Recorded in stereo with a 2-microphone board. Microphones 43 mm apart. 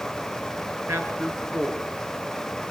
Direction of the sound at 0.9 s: 60° right (ahead or behind).